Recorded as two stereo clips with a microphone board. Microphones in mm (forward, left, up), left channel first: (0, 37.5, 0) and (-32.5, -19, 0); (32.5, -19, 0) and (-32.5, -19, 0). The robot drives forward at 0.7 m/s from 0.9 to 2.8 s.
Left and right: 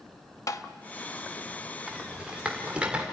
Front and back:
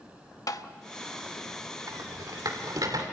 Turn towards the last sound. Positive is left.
turn(degrees=165)